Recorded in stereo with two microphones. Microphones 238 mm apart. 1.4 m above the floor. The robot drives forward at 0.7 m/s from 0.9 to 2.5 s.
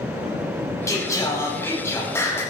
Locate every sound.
0.9 s singing: 10° left (ahead or behind), 4 m